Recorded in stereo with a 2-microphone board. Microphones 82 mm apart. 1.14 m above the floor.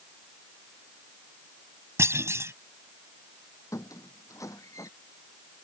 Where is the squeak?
40° left (ahead or behind).